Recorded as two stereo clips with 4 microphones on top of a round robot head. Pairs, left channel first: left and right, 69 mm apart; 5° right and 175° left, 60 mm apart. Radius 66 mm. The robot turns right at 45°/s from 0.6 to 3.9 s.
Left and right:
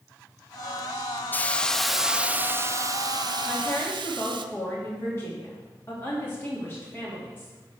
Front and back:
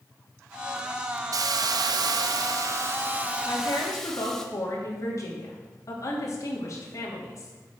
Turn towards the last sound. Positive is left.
turn(degrees=25)